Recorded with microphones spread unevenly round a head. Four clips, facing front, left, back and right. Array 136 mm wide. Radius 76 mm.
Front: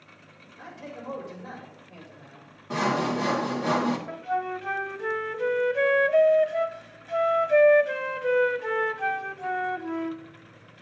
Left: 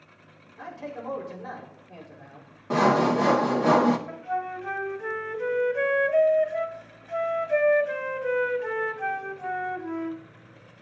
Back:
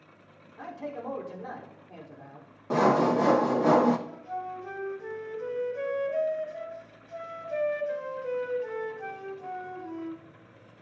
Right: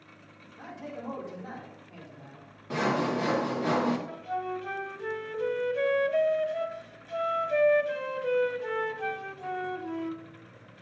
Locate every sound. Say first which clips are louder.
0.6 s a man speaking: left 3 dB, back 4 dB; 170° left, 4.5 m
2.7 s sawing: left 7 dB, back 4 dB; 140° left, 0.8 m
4.1 s a flute: left 3 dB, front 7 dB; 15° left, 1.1 m